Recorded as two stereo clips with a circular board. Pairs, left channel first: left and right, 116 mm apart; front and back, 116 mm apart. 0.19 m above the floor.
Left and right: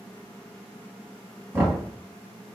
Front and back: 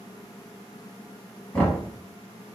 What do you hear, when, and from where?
1.5 s knocking: 65° right, 1.1 m